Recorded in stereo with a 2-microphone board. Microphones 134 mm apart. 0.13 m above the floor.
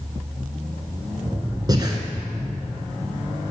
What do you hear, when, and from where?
1.7 s breathing: 30° right (ahead or behind), 1.3 m